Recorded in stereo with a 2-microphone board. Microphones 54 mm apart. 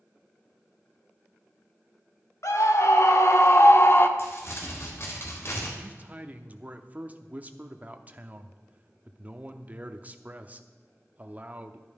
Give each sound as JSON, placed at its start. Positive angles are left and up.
{"t": 2.4, "sound": "a scream", "side_deg": 70, "distance_m": 1.8}
{"t": 4.2, "sound": "crumpling", "side_deg": 50, "distance_m": 3.0}
{"t": 5.8, "sound": "a man speaking", "side_deg": -30, "distance_m": 0.8}